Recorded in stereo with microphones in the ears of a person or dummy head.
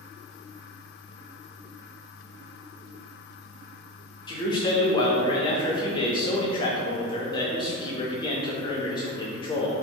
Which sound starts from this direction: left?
A man speaking, at 4.3 s.